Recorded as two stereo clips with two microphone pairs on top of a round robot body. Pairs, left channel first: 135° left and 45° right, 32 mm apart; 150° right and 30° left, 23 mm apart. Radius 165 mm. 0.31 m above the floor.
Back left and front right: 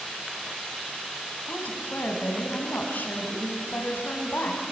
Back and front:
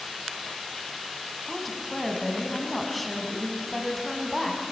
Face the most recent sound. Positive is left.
turn(degrees=130)